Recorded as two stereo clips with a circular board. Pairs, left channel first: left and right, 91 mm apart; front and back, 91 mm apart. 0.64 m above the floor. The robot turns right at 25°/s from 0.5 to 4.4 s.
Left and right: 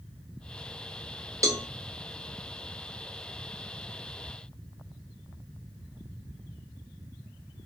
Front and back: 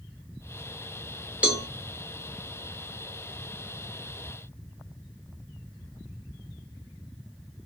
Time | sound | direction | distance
1.4 | a cowbell | 115° right | 0.6 m